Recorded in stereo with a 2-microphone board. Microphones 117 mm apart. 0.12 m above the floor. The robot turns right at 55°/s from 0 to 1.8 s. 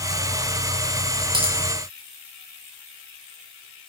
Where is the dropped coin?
45° right (ahead or behind), 7.5 m; by 1.6 s 55° right (ahead or behind), 7.5 m.